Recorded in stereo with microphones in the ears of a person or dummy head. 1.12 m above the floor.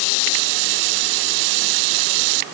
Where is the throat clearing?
No throat clearing in this recording.